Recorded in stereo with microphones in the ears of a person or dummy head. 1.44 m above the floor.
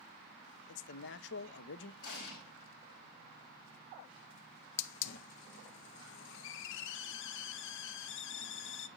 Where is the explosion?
60° left (ahead or behind), 4 m.